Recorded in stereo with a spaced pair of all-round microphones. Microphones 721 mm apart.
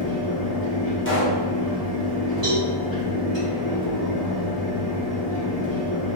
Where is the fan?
10° left (ahead or behind), 1.9 m.